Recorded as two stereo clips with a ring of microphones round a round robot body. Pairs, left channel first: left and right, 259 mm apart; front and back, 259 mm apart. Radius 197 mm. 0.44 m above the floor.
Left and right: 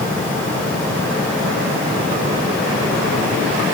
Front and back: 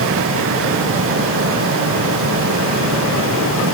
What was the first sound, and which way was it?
Only background noise.